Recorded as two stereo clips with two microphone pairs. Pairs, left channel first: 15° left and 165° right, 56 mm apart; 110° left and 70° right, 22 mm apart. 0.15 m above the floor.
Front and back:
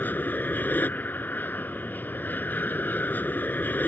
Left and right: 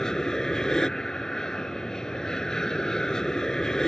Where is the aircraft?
55° left.